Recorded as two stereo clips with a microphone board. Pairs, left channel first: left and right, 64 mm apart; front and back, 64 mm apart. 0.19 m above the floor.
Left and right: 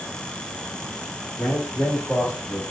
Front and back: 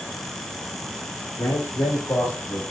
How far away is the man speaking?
About 4 m.